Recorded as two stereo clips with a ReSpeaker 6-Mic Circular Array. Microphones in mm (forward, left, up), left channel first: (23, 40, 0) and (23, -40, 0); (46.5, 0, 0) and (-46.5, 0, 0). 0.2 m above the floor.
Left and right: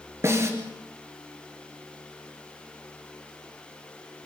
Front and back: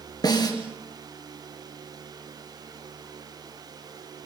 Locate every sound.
0.2 s a snare drum: 35° right, 4.5 m